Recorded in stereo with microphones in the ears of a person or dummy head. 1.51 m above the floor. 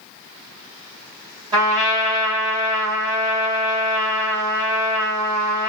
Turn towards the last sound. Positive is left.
turn(degrees=-25)  # may be behind; listen again after turning